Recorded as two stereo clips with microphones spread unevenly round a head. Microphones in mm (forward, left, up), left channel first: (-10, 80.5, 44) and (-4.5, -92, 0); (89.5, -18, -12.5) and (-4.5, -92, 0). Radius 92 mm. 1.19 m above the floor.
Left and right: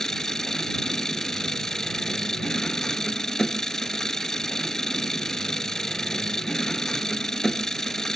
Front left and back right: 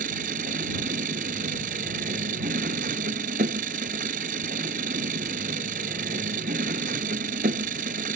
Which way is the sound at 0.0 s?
Straight behind.